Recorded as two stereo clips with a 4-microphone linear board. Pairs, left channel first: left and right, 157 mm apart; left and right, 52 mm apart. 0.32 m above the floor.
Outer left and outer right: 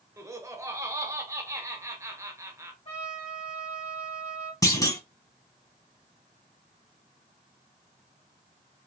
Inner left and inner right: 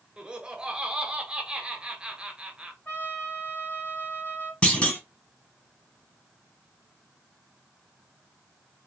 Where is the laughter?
20° right (ahead or behind), 0.9 m.